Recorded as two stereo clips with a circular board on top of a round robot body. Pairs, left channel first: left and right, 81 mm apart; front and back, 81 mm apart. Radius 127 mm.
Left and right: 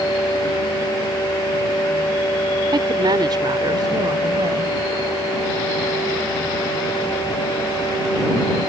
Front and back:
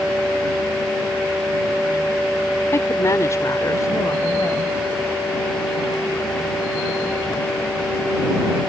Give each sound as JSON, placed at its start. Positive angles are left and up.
{"t": 2.7, "sound": "a woman speaking", "azimuth_deg": -55}